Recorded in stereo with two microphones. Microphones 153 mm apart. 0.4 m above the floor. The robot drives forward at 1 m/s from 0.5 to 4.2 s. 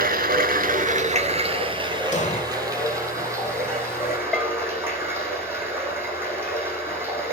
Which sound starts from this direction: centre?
A bell, at 4.3 s.